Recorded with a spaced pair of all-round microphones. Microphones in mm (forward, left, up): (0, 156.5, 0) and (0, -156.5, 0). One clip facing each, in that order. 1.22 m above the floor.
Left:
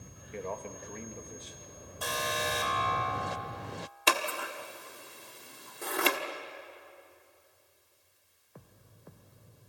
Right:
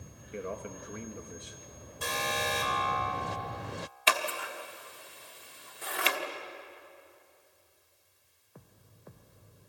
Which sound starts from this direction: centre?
A man speaking, at 0.3 s.